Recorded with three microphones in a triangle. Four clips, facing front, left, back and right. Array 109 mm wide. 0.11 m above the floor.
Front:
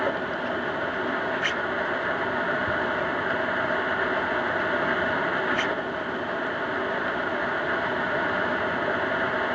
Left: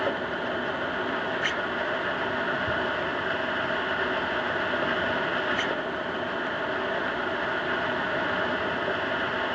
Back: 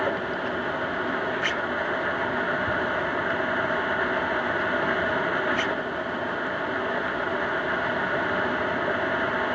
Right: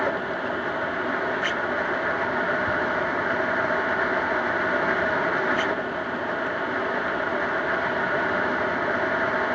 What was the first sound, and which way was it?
Only background noise.